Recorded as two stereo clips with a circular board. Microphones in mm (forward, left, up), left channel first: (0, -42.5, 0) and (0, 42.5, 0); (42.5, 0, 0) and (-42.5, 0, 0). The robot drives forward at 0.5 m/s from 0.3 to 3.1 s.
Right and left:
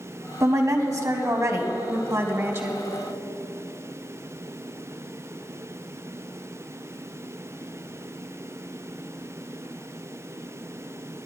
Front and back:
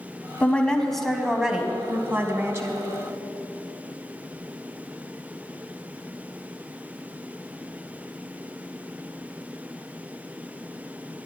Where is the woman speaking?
65° left, 1.2 m; by 2.8 s 140° left, 1.4 m.